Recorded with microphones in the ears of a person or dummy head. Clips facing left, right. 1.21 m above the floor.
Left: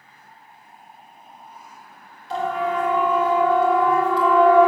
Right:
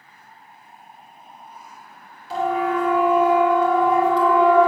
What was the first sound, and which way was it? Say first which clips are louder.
A siren: right 2 dB; centre (ahead or behind).